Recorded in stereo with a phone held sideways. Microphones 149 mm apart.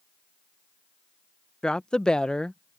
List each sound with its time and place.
1.6 s a woman speaking: 5° left (ahead or behind)